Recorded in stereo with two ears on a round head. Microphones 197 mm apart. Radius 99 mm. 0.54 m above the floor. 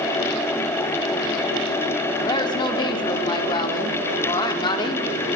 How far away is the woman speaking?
About 1.4 m.